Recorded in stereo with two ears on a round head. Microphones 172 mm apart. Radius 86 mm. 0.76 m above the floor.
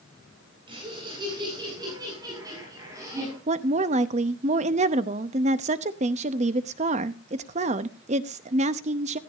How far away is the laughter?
About 7.5 m.